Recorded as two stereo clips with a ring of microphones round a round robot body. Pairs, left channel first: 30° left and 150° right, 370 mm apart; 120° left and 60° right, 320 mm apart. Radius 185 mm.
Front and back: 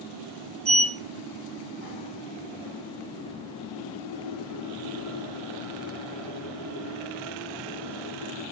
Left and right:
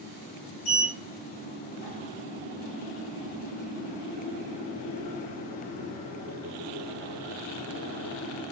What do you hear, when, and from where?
0.7 s a sliding door: 135° left, 1.8 m